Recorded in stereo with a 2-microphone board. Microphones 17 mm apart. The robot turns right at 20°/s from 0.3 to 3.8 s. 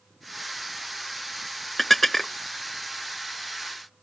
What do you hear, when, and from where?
1.8 s dishes clattering: 10° left (ahead or behind); by 2.3 s 15° left (ahead or behind)